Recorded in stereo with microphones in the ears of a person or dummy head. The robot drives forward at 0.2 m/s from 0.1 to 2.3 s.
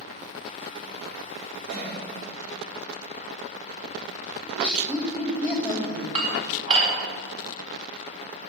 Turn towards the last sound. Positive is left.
turn(degrees=-40)  # may be behind; listen again after turning